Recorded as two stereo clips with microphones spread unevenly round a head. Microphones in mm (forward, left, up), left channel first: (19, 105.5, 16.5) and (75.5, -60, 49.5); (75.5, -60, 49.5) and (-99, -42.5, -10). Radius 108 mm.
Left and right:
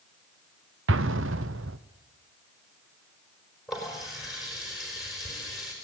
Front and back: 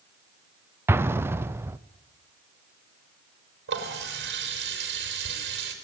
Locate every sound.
0.9 s an explosion: 105° right, 0.9 m
3.7 s a running tap: 160° right, 4.5 m